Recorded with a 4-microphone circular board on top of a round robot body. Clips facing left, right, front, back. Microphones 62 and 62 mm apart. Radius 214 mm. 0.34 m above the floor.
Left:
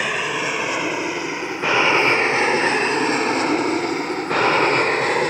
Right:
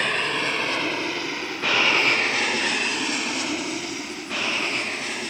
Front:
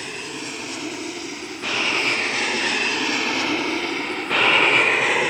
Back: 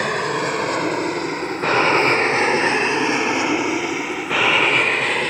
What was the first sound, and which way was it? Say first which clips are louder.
An aircraft: left 2 dB, back 11 dB; 170° left.